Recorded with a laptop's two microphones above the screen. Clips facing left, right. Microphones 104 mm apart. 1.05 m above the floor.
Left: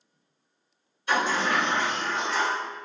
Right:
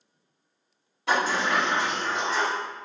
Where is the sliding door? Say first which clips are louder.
Even; 85° right, 1.6 m.